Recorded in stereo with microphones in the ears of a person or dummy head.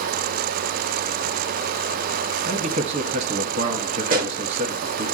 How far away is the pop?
About 1.3 m.